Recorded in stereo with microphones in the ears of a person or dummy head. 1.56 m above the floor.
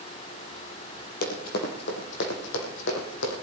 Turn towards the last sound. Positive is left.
turn(degrees=70)  # may be behind; listen again after turning